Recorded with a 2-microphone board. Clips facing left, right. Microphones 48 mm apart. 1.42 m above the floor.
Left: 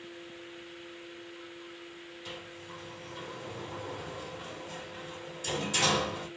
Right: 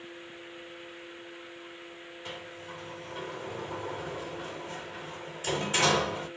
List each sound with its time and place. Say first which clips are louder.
2.2 s a sliding door: right 3 dB; 40° right (ahead or behind), 3 m